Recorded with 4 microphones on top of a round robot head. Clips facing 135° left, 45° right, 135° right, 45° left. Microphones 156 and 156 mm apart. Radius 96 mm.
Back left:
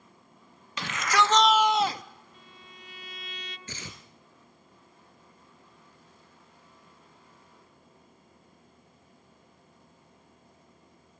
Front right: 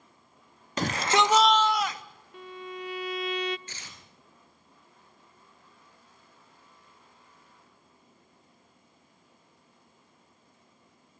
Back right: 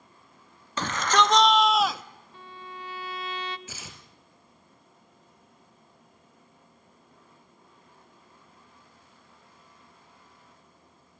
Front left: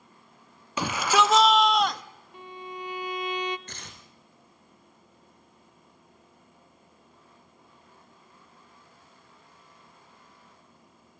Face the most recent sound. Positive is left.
turn(degrees=140)